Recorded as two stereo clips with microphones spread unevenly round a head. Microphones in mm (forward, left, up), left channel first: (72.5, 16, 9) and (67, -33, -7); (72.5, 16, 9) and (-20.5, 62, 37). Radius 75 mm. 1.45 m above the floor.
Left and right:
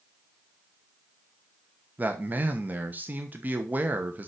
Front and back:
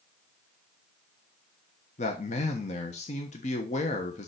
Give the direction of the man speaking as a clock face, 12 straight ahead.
1 o'clock.